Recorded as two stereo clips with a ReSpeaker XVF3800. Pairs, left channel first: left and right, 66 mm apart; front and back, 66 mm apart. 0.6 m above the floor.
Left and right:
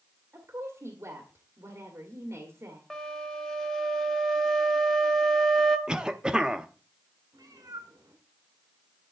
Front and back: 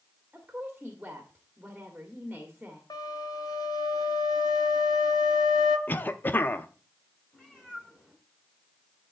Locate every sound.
0.3 s a woman speaking: 110° right, 1.6 m
2.9 s a flute: 10° left, 1.4 m
5.9 s a cough: 25° right, 0.6 m
7.3 s a cat meowing: 80° right, 2.5 m